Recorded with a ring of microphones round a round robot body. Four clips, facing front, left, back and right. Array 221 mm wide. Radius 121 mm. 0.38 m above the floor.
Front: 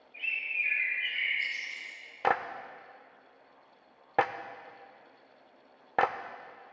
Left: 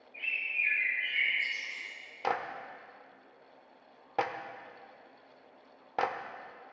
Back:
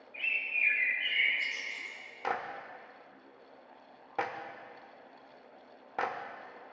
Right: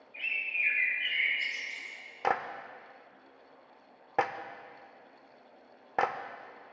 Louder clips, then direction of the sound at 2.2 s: Right 2 dB, front 6 dB; 20° right.